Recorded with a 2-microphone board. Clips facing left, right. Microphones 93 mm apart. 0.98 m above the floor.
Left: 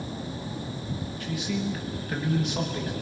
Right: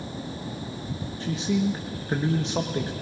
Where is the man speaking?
30° right (ahead or behind), 1.3 m.